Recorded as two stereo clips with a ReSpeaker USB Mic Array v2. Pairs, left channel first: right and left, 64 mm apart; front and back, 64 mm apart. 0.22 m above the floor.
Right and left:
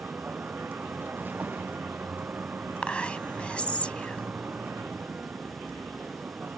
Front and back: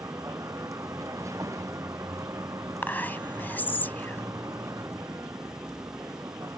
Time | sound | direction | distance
0.0 | a vehicle | 150° left | ?
2.8 | whispering | 35° right | ?